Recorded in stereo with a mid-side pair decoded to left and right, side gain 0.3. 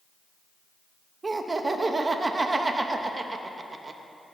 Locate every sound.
1.2 s laughter: 40° right, 0.9 m